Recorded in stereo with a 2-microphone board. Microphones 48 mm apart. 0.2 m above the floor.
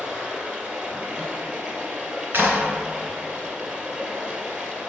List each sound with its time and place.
0.0 s running water: 20° right (ahead or behind), 1.5 m
2.3 s a clap: 50° right (ahead or behind), 1.5 m